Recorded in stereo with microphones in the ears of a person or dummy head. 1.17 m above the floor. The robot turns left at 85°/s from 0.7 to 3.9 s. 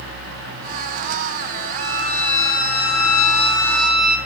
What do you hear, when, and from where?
1.8 s a violin: 175° left, 8.5 m; by 4.2 s 5° right, 8.5 m